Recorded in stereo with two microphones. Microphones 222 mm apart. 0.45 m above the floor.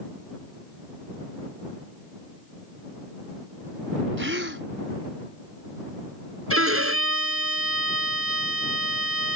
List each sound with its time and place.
4.2 s a gasp: 60° right (ahead or behind)
6.5 s a violin: 85° right